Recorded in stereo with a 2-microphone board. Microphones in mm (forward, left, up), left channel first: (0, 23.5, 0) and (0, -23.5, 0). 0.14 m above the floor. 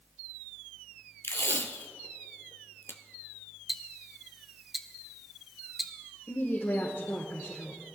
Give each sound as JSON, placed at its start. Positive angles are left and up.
{"t": 1.2, "sound": "tape being pulled", "side_deg": 70, "distance_m": 0.9}
{"t": 3.7, "sound": "ticking", "side_deg": -5, "distance_m": 0.9}
{"t": 6.3, "sound": "a woman speaking", "side_deg": 50, "distance_m": 2.5}